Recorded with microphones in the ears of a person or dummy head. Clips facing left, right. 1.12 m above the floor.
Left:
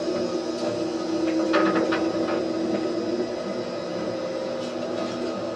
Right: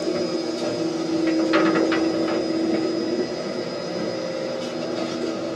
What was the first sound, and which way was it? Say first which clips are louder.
A machine running: right 2 dB; 25° right (ahead or behind).